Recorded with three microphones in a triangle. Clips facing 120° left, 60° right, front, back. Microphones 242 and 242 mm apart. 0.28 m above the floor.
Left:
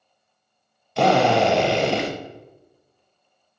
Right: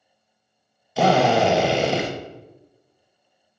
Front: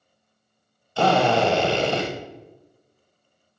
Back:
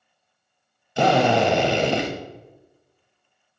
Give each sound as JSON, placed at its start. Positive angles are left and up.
{"t": 1.0, "sound": "a drill", "azimuth_deg": -145, "distance_m": 1.2}